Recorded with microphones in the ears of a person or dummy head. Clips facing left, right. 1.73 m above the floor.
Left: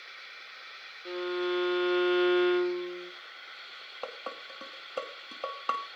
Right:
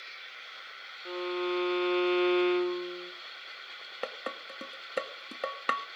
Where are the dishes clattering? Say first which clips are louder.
Right 2 dB; 25° right (ahead or behind), 1.3 m.